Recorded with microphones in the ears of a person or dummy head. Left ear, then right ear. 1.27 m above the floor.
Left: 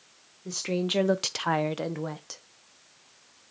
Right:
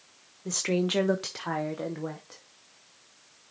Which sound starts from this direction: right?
A woman speaking, at 0.5 s.